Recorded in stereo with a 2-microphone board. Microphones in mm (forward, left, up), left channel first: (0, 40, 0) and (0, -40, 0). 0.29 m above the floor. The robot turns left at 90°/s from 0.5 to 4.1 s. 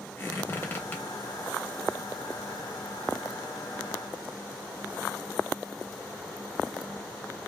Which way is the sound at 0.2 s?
35° left (ahead or behind).